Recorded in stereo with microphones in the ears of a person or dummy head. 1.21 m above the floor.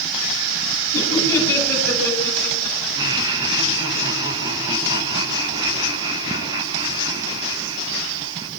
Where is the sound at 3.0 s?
20° right (ahead or behind), 5 m.